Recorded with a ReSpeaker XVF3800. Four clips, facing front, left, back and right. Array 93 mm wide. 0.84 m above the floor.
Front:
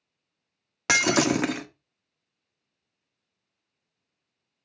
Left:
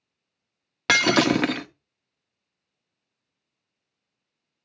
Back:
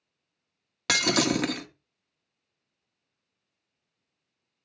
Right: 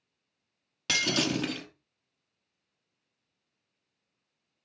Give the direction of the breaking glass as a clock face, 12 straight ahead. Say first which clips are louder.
Left 10 dB, front 3 dB; 10 o'clock.